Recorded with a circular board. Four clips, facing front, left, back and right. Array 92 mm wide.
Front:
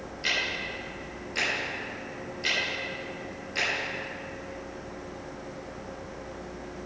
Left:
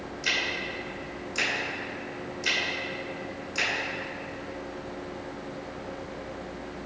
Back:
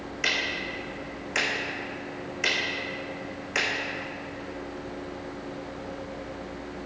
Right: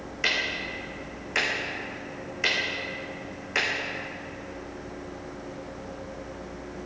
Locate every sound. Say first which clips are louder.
0.2 s ticking: right 2 dB, back 2 dB; 130° right, 3.5 m